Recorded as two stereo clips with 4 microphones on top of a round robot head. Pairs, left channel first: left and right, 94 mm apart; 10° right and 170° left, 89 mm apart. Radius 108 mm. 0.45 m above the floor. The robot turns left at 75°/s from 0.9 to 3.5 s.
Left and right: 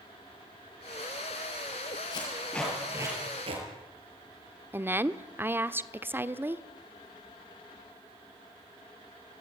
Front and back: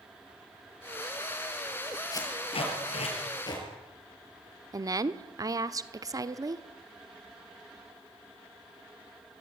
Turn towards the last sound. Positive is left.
turn(degrees=-150)